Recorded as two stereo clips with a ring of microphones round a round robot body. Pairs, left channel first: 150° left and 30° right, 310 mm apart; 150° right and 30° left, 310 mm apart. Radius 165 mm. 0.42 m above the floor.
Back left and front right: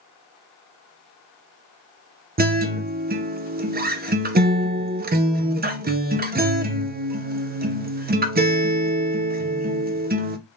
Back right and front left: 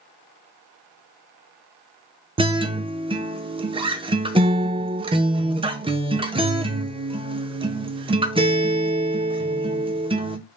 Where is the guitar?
25° right, 0.5 m.